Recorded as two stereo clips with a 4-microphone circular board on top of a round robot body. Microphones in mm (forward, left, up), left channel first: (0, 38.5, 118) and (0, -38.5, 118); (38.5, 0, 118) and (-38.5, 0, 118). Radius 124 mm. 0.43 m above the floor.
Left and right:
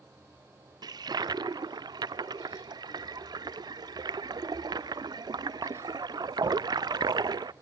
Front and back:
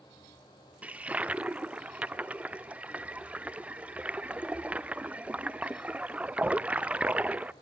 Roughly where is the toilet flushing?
Right.